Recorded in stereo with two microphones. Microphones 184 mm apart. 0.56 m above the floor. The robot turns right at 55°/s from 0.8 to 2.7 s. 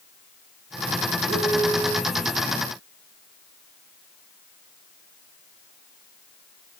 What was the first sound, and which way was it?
A piano, 100° right.